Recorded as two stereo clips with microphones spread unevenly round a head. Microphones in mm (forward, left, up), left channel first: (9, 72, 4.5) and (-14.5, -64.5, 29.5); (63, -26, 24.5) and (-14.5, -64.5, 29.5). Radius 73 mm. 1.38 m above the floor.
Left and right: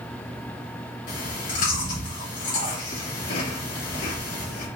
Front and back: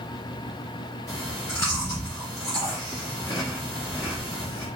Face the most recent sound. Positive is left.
turn(degrees=100)